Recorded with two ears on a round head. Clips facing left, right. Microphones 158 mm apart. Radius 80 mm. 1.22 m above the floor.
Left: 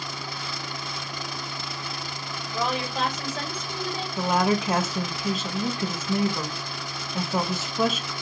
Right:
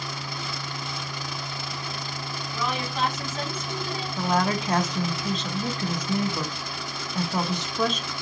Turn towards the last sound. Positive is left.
turn(degrees=5)  # may be behind; listen again after turning